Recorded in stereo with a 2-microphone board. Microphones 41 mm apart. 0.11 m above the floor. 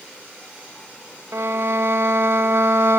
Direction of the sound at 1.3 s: 80° right.